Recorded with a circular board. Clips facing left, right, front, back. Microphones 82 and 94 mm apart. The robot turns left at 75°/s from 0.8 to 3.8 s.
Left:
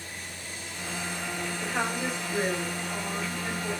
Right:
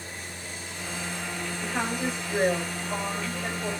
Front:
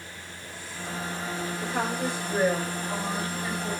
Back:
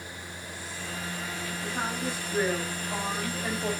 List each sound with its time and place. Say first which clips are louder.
1.6 s a woman speaking: right 1 dB, front 3 dB; 10° left, 5 m; by 3.7 s 150° right, 5 m